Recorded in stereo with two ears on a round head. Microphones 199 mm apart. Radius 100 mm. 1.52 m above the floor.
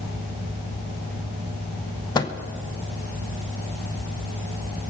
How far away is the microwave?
About 0.6 m.